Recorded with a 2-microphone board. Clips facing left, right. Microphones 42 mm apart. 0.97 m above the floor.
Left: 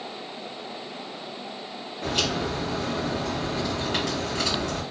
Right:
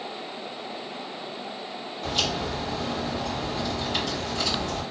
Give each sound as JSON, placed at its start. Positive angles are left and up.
{"t": 2.0, "sound": "a crack", "side_deg": 55, "distance_m": 2.5}